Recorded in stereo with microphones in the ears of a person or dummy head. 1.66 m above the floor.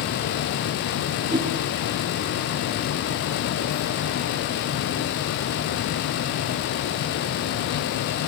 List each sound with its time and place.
1.3 s a whoosh: 30° right (ahead or behind), 4.5 m